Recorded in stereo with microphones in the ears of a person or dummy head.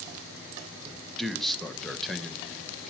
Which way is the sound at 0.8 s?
5° left (ahead or behind).